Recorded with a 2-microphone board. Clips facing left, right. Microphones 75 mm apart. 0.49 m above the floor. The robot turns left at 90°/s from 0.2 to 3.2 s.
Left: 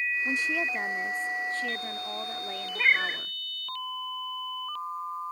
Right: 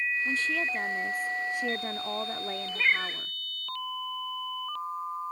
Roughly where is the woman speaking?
Left.